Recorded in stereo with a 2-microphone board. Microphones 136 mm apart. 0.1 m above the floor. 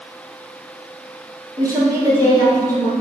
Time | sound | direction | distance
1.6 | a woman speaking | 25° right (ahead or behind) | 1.4 m